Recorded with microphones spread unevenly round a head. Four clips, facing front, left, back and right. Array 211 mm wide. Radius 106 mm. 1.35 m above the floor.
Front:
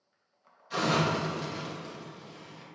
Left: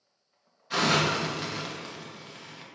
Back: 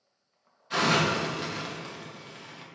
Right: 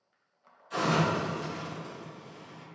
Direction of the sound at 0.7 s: 120° left.